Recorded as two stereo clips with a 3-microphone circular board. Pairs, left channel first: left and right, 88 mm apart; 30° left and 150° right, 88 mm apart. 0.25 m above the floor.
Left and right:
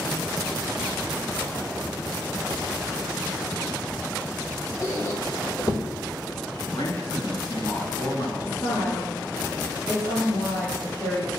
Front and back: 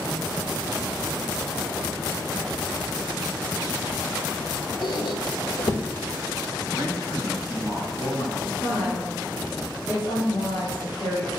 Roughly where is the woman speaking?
Left.